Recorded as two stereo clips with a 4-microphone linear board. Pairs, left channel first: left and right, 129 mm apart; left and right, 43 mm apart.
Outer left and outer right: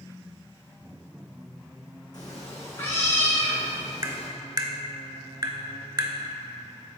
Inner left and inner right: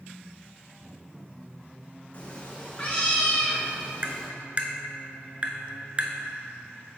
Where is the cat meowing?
35° left (ahead or behind), 1.1 m; by 4.3 s 5° left (ahead or behind), 2 m.